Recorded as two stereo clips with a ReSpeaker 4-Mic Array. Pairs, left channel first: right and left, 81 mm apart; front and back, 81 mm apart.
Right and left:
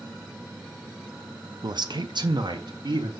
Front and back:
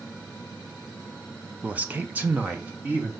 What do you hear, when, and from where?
1.6 s a man speaking: 110° left, 0.6 m